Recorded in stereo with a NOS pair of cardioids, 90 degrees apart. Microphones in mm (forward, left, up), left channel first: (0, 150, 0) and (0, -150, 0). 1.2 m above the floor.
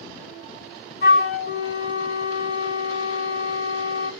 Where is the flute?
40° left, 2 m.